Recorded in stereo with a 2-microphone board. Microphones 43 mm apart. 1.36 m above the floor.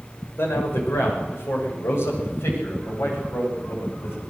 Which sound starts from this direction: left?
A man speaking, at 0.4 s.